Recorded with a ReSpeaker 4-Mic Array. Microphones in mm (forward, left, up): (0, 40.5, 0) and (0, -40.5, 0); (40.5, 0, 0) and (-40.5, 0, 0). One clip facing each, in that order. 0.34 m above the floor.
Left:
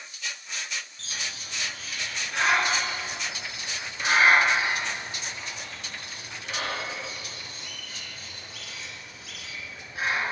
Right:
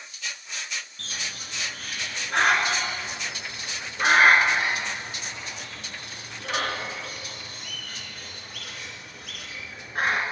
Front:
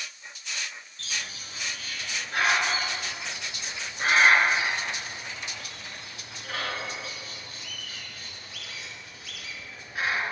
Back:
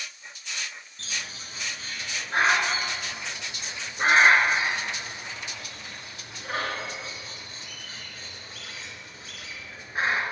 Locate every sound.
1.0 s a bird: 125° right, 3 m